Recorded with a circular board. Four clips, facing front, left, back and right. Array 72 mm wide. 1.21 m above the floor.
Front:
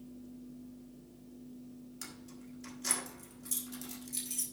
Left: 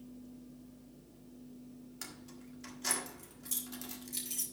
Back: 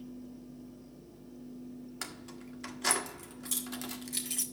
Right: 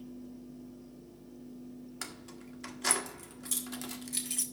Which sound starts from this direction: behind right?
Keys jangling, at 2.0 s.